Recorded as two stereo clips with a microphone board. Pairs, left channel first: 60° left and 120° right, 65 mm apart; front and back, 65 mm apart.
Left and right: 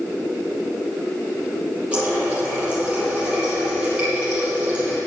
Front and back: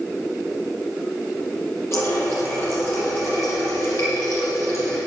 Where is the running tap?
45° right, 7 m.